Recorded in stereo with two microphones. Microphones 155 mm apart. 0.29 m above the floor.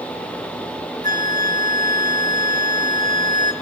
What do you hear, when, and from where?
1.0 s a flute: 65° right (ahead or behind), 2 m